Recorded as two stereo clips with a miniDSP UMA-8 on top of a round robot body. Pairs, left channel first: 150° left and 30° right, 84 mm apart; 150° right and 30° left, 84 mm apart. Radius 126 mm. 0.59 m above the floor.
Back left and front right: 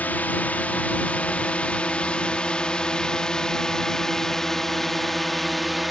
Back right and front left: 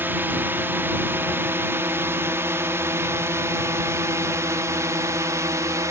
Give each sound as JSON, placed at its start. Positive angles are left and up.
{"t": 0.0, "sound": "a drone", "azimuth_deg": 85}